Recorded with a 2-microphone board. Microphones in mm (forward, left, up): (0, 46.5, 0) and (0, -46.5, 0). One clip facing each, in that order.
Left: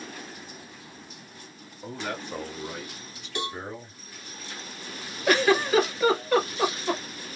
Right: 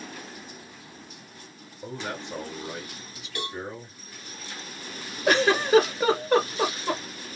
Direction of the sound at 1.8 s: 25° right (ahead or behind).